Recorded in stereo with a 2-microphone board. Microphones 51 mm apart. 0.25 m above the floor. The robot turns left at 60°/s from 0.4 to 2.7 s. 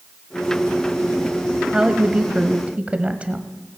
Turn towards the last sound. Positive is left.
turn(degrees=-25)  # may be behind; listen again after turning